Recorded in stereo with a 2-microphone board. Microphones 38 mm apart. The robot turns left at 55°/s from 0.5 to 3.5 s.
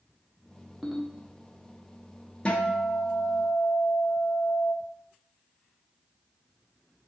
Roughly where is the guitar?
Behind left.